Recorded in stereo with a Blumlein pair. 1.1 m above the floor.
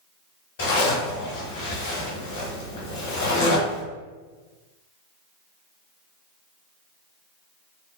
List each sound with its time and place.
0.6 s a zipper: 55° left, 1.1 m